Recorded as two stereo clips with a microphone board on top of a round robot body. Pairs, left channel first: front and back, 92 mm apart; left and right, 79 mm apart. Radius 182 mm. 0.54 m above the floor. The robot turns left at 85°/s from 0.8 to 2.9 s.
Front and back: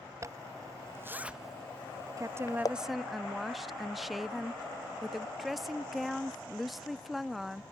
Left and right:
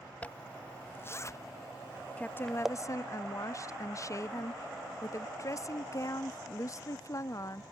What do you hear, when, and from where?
0.2 s a zipper: 150° left; by 2.7 s 10° right
2.2 s a woman speaking: 155° left; by 7.6 s 95° left